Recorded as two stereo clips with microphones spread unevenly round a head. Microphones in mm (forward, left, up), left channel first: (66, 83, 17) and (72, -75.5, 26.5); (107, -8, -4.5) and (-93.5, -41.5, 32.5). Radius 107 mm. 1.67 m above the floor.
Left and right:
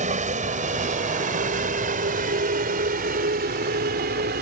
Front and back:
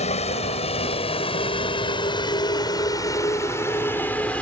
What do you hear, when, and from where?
0.0 s a vehicle: 50° right; by 4.4 s 80° right